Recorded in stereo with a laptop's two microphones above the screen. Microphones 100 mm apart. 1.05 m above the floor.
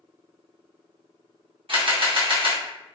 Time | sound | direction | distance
1.7 | a camera shutter | 60° right (ahead or behind) | 0.7 m